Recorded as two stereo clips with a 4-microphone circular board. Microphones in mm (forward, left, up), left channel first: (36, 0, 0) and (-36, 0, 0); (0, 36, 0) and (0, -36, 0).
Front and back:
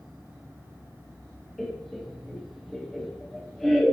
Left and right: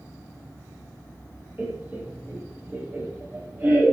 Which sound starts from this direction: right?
Laughter, at 1.6 s.